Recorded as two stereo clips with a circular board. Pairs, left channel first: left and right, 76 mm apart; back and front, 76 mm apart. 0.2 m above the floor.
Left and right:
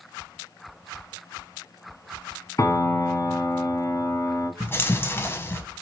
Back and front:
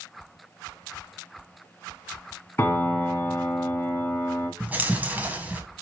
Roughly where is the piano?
Behind left.